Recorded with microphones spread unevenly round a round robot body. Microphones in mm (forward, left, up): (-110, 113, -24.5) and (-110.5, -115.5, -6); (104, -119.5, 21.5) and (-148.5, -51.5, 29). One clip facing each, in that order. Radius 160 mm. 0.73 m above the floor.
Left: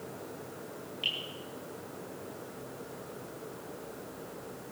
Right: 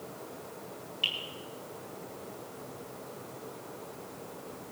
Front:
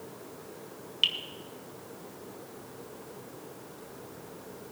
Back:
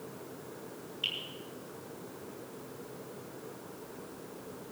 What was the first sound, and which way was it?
Dripping, 10° right.